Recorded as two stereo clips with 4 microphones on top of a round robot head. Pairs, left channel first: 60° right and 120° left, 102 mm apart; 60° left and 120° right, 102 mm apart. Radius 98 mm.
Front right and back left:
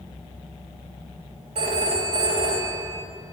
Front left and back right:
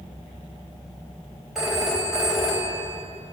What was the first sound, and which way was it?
A phone ringing, 150° left.